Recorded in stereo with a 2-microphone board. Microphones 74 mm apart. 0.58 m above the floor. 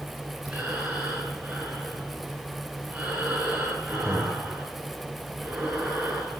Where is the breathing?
15° right (ahead or behind), 9.5 m.